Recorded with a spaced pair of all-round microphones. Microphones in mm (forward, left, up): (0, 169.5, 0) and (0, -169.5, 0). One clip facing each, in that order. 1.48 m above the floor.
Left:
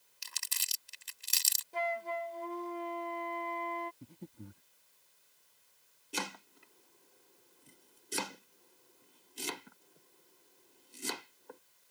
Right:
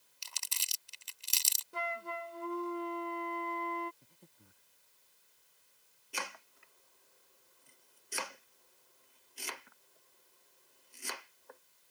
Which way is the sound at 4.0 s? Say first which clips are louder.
Left 15 dB; 75° left (ahead or behind).